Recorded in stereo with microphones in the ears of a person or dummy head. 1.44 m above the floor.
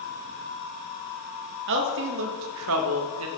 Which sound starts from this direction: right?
A woman speaking, at 1.7 s.